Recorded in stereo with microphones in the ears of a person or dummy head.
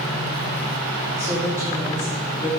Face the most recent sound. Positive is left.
turn(degrees=-10)  # may be behind; listen again after turning